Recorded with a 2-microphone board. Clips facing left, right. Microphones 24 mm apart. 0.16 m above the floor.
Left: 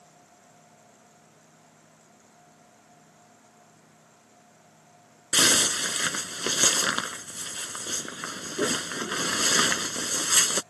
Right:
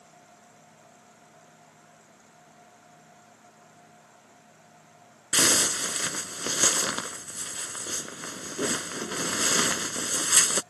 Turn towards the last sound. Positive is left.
turn(degrees=25)  # may be behind; listen again after turning